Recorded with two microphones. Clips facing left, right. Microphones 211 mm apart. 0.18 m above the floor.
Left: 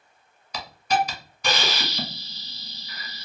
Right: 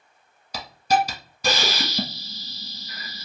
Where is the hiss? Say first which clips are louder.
Right 2 dB; 40° right (ahead or behind), 0.9 m.